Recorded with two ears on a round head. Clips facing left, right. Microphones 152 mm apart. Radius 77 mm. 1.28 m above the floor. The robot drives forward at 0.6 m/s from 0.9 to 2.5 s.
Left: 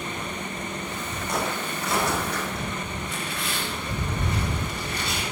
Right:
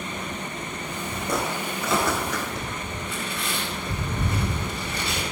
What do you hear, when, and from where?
1.3 s footsteps: 75° right (ahead or behind), 5.5 m; by 2.7 s 65° right (ahead or behind), 5 m
3.0 s tearing paper: 75° right (ahead or behind), 4 m